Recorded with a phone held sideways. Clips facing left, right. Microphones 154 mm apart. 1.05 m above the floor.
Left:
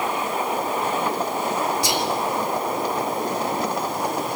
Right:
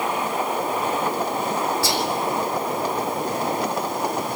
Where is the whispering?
20° left (ahead or behind), 2.5 m.